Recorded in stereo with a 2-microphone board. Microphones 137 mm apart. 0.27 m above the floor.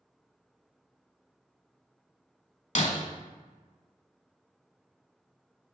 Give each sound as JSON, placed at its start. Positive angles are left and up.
{"t": 2.8, "sound": "breaking glass", "side_deg": 60, "distance_m": 1.0}